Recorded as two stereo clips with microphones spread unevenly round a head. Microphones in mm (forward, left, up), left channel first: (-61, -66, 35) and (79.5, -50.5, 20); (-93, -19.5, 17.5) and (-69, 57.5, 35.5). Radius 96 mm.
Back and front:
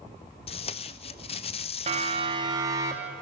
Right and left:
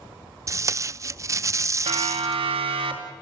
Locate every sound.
0.5 s tape being pulled: 125° left, 0.6 m
1.9 s a siren: 60° left, 2.5 m; by 3.1 s 85° left, 3 m